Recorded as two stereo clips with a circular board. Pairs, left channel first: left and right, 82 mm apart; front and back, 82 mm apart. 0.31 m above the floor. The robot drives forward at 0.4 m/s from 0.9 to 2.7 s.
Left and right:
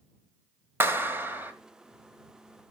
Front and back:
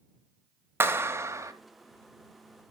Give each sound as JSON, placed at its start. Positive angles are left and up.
{"t": 0.8, "sound": "a clap", "azimuth_deg": -135, "distance_m": 1.1}